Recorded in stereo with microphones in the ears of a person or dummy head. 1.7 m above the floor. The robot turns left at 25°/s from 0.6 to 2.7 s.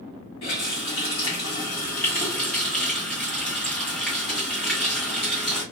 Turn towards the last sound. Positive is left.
turn(degrees=10)